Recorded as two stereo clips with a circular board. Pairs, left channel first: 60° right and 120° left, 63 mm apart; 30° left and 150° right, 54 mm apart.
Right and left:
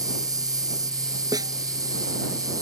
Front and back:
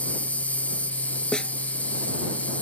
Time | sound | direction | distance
0.0 | an insect | 95° left | ?
1.3 | a snare drum | 105° left | ?